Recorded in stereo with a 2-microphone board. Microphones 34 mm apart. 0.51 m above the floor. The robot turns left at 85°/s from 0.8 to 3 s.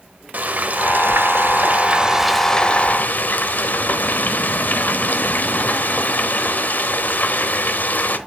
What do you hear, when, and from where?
0.3 s frying: 50° right, 0.9 m; by 8.2 s 120° left, 0.9 m